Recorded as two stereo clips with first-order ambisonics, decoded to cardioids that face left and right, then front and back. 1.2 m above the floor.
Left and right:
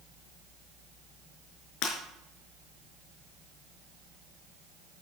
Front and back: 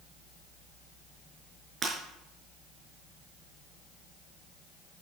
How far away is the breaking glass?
About 5 m.